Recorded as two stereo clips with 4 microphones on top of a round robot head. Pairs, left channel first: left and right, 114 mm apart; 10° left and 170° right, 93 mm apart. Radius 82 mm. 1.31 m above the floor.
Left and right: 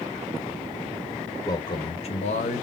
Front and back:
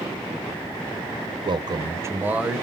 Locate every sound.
1.4 s a man speaking: 155° left, 0.8 m; by 2.6 s 105° left, 0.9 m